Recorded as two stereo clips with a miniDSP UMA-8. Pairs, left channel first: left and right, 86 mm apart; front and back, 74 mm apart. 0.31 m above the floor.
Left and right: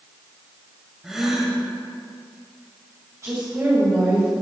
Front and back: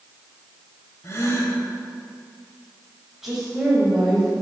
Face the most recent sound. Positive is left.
turn(degrees=-100)